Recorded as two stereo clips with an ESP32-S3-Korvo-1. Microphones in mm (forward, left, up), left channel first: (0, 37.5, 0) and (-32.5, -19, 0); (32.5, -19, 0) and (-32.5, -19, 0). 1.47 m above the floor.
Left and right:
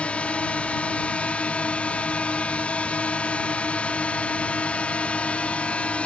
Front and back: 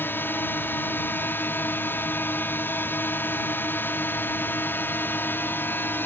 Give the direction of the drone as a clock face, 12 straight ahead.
12 o'clock.